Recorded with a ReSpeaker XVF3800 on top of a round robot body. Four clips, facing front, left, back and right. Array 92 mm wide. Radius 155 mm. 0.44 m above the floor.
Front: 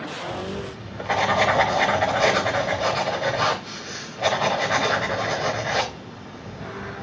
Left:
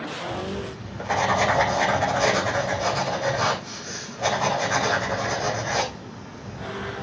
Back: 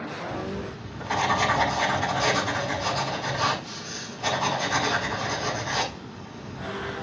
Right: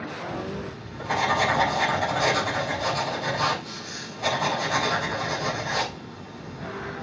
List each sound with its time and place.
0.3 s writing: 20° left, 4 m